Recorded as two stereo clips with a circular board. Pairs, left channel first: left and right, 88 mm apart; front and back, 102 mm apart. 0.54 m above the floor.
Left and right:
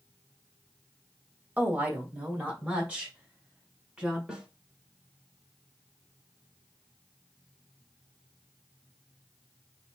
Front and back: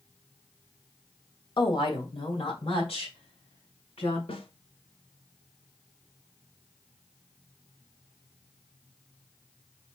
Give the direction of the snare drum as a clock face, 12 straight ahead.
12 o'clock.